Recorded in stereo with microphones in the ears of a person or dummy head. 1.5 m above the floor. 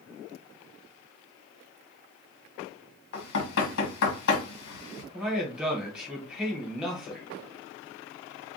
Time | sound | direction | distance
3.1 | knocking | 65° left (ahead or behind) | 1.4 m
5.1 | a man speaking | centre (ahead or behind) | 1.3 m